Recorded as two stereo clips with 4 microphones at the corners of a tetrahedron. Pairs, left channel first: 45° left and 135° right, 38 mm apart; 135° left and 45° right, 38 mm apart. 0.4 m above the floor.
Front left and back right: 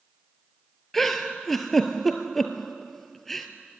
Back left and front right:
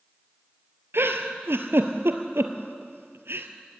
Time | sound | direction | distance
0.9 | a giggle | 40° right | 1.4 m